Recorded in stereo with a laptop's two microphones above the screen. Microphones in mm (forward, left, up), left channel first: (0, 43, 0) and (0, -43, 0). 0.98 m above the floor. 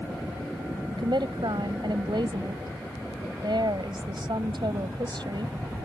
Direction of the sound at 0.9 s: 75° right (ahead or behind).